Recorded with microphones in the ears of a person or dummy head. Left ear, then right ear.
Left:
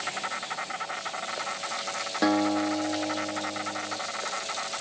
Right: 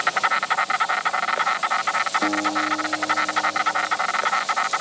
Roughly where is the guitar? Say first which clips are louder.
Right 3 dB; left.